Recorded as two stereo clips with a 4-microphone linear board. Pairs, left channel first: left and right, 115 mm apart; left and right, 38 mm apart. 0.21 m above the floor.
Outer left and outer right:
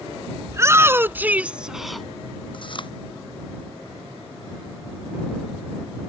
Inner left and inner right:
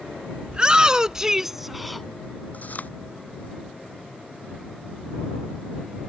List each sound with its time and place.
0.5 s a shout: 30° right (ahead or behind); by 2.1 s 5° left (ahead or behind)
2.5 s chewing: 50° left (ahead or behind)